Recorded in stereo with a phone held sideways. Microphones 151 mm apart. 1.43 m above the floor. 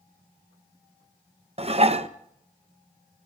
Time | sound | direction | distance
1.6 | dishes clattering | 40° right (ahead or behind) | 0.7 m